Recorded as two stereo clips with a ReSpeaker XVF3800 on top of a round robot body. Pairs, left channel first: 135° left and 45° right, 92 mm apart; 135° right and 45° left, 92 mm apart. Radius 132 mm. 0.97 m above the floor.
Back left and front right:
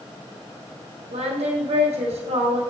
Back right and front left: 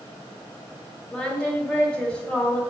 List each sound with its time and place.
1.1 s singing: 55° right, 1.8 m